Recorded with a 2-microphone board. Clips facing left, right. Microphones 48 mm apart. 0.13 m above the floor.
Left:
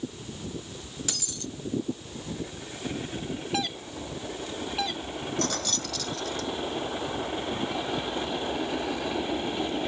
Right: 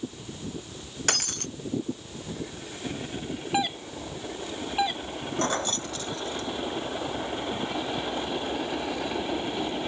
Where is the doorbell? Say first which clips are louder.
Right 6 dB; 15° right (ahead or behind).